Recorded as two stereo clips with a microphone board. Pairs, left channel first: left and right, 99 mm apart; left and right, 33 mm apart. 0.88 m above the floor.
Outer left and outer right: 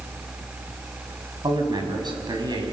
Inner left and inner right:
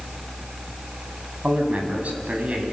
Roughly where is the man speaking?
Right.